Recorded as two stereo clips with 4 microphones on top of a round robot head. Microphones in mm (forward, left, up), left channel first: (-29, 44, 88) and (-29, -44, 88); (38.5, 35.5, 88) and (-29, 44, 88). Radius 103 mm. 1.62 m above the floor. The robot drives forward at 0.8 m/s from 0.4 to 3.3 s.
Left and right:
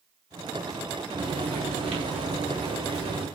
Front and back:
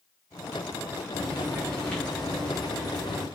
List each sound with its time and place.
1.2 s frying: 75° right, 8.5 m; by 3.3 s 90° right, 8 m